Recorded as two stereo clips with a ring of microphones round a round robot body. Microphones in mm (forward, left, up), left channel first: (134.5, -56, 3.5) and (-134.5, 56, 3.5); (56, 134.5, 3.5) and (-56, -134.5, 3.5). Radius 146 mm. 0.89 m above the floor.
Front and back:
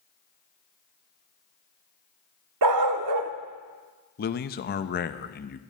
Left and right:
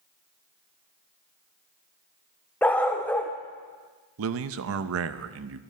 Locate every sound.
2.6 s a dog barking: 150° left, 0.8 m
4.2 s a man speaking: 75° right, 0.5 m